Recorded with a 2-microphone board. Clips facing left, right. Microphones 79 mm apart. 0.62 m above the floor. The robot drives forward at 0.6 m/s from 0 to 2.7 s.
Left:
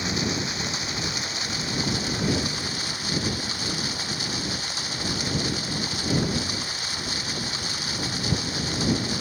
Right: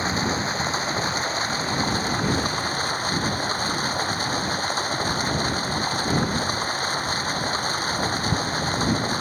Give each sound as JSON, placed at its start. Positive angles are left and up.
{"t": 0.0, "sound": "running water", "side_deg": -40}